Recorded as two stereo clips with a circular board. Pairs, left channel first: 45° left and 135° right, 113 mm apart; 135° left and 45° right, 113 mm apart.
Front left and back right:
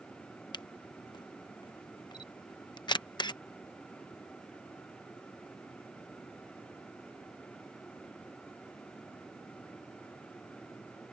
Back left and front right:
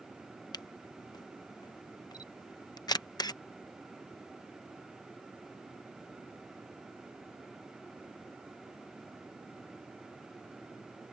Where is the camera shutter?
85° left.